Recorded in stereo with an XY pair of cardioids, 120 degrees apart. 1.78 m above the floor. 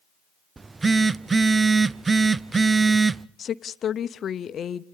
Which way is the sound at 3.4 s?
45° left.